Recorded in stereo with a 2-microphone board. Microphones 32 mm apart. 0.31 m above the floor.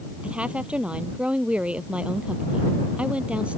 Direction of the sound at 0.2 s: 40° right (ahead or behind).